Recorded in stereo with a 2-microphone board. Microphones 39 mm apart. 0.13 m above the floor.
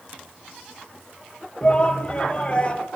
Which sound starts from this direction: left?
A shout, at 1.6 s.